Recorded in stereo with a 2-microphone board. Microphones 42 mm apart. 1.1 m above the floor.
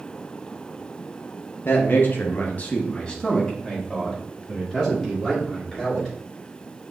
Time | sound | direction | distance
1.6 | a man speaking | 55° left (ahead or behind) | 0.9 m